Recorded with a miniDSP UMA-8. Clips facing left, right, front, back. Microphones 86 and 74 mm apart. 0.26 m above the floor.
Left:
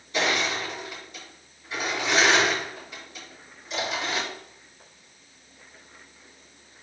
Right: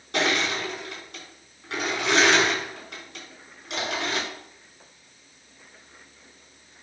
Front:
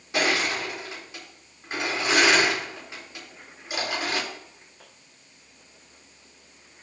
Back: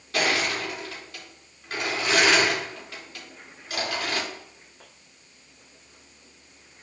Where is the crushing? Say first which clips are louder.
Right 1 dB, even; 75° right, 4 m.